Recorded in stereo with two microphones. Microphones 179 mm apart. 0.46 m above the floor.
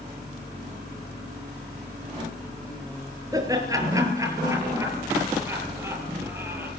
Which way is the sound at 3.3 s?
20° right (ahead or behind).